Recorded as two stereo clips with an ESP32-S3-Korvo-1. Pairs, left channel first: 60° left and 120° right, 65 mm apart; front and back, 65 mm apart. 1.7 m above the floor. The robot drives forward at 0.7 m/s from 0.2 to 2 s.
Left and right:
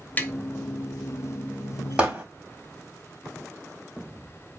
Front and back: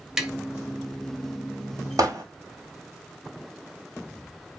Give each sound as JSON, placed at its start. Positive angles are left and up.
{"t": 0.2, "sound": "tapping", "azimuth_deg": 105, "distance_m": 0.8}
{"t": 2.0, "sound": "hammering", "azimuth_deg": 170, "distance_m": 3.0}